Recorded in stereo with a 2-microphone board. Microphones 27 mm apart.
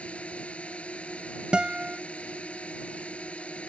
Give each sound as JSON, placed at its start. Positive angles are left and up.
{"t": 0.0, "sound": "a drone", "side_deg": 55}
{"t": 1.5, "sound": "a guitar", "side_deg": -35}